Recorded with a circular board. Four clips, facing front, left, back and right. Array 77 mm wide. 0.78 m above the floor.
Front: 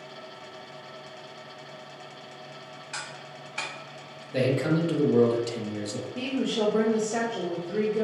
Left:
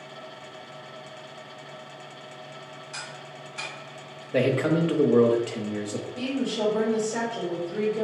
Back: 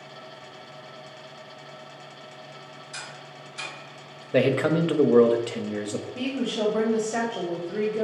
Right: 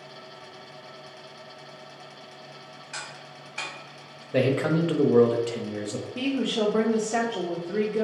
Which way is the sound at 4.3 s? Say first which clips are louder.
Even, back 4 dB; 175° right.